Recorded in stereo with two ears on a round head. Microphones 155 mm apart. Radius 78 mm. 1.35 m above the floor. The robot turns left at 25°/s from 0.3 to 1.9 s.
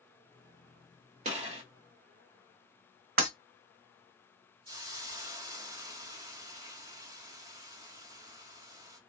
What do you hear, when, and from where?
1.2 s a gunshot: 45° right (ahead or behind), 1.7 m; by 1.6 s 35° right (ahead or behind), 1.7 m
3.2 s breaking glass: 55° right (ahead or behind), 1.7 m
4.7 s a hiss: 30° right (ahead or behind), 1.7 m